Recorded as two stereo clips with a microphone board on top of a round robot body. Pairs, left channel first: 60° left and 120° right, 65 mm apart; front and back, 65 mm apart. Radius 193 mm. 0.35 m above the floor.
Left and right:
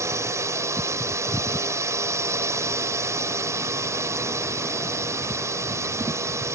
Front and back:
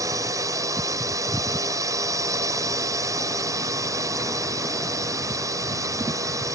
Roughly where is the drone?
Behind right.